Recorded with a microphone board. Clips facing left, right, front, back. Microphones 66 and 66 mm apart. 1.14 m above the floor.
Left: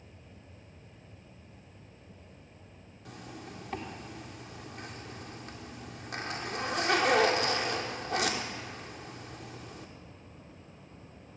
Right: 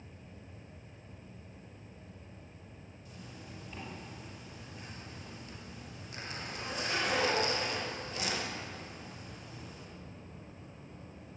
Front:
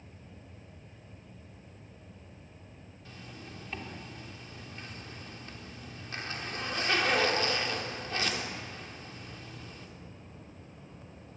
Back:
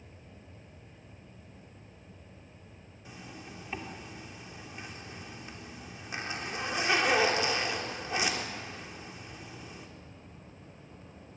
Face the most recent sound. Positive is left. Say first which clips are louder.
# left 6 dB, back 2 dB
turn(degrees=105)